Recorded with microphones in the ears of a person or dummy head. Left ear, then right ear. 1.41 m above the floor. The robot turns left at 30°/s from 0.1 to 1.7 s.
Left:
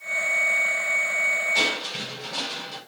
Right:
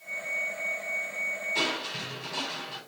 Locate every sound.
1.6 s crushing: 20° left (ahead or behind), 4.5 m; by 2.8 s 15° left (ahead or behind), 4.5 m